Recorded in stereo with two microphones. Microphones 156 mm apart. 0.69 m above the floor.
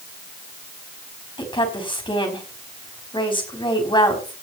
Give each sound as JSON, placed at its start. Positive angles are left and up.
{"t": 1.4, "sound": "a woman speaking", "side_deg": 30, "distance_m": 4.5}